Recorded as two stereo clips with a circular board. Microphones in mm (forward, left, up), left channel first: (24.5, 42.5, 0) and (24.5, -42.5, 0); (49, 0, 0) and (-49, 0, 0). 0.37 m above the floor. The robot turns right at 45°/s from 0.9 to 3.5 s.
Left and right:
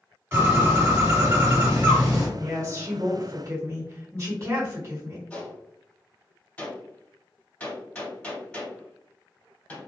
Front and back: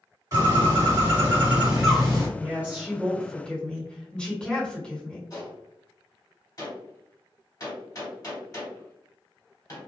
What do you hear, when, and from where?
0.3 s a bird: 140° right, 1.8 m; by 2.3 s 80° right, 1.8 m
2.4 s a woman speaking: 120° right, 1.5 m; by 5.2 s 70° right, 1.5 m
5.3 s a gunshot: 25° left, 1.9 m